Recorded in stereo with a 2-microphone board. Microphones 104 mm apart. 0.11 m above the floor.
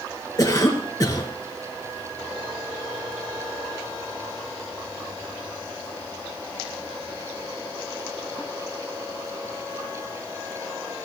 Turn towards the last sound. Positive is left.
turn(degrees=35)  # may be behind; listen again after turning